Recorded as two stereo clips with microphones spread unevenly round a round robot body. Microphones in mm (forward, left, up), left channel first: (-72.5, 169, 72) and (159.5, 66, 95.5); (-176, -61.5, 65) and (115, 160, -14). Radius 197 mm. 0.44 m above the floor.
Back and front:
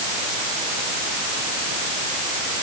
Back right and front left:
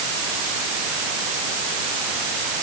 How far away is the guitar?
I don't hear a guitar.